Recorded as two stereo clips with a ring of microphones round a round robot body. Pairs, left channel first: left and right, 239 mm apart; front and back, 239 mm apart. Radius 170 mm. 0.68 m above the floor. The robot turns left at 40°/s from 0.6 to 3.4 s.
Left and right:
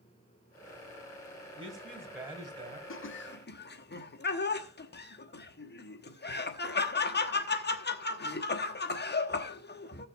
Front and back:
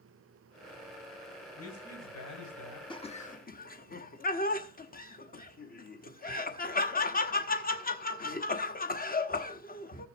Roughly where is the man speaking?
Ahead.